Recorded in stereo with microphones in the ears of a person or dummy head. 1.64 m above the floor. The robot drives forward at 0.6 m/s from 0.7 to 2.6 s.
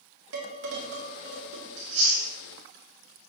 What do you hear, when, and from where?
0.3 s dishes clattering: 65° right (ahead or behind), 2 m; by 1.7 s 55° right (ahead or behind), 2 m
1.8 s chewing: 40° right (ahead or behind), 2.5 m; by 2.3 s 35° right (ahead or behind), 2.5 m